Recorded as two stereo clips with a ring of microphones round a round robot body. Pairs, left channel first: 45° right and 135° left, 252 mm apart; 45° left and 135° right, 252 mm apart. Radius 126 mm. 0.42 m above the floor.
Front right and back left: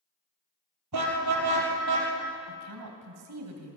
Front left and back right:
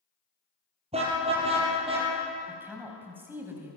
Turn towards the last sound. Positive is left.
turn(degrees=145)